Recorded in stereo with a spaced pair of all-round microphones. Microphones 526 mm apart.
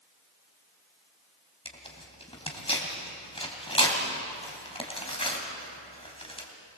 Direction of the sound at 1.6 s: 10° left (ahead or behind).